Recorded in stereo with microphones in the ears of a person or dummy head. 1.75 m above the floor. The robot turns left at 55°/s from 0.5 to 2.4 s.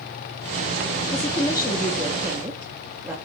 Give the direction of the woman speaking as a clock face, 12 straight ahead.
10 o'clock.